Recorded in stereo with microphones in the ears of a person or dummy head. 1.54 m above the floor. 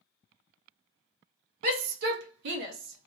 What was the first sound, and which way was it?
A shout, 50° right (ahead or behind).